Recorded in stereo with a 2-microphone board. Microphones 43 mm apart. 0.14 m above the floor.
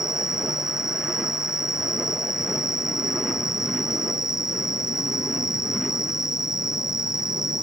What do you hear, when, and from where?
0.0 s an insect: 10° right (ahead or behind)